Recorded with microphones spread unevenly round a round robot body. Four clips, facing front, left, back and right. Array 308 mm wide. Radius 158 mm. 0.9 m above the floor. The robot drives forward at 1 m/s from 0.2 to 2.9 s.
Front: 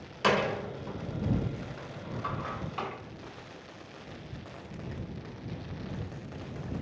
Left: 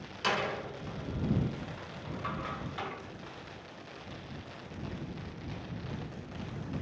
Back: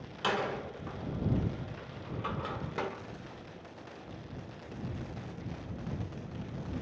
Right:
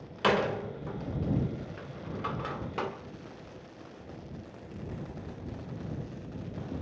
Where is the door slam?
50° right, 2 m; by 2.9 s 125° right, 2 m.